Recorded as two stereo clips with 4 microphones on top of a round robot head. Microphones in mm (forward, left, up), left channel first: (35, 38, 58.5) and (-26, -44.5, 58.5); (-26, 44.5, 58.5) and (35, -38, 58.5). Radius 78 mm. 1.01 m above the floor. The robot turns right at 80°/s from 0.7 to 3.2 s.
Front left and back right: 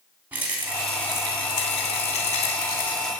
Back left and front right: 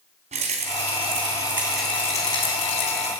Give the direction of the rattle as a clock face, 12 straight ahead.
2 o'clock.